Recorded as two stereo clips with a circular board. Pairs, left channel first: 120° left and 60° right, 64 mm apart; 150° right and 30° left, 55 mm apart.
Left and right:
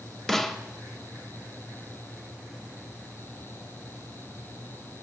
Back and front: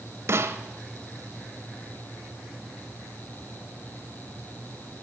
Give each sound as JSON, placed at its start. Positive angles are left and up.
{"t": 0.3, "sound": "a snare drum", "azimuth_deg": 40, "distance_m": 0.8}